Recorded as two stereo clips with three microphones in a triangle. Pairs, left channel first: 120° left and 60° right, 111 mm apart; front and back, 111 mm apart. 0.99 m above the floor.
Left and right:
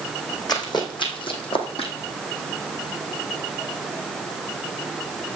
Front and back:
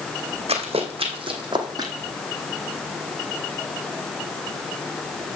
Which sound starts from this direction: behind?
Running footsteps, at 0.5 s.